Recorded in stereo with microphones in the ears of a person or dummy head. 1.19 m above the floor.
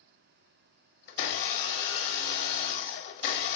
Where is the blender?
50° left (ahead or behind), 1.1 m.